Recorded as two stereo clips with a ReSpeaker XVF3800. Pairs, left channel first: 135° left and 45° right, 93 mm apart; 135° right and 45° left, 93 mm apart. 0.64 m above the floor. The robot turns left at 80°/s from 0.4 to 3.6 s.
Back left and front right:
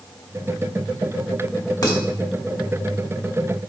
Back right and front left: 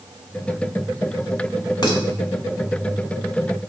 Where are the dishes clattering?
175° right, 1.9 m; by 2.0 s 170° left, 1.9 m.